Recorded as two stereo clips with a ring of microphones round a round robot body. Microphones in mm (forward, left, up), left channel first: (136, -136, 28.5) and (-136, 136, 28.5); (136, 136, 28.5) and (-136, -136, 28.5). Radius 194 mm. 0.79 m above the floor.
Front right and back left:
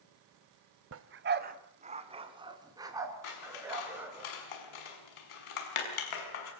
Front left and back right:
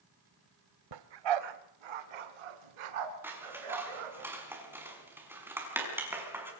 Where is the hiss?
I don't hear a hiss.